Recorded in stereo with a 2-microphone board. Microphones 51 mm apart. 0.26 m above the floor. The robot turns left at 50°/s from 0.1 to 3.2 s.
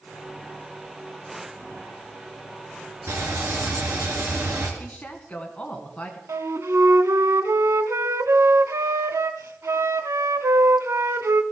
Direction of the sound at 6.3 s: 80° right.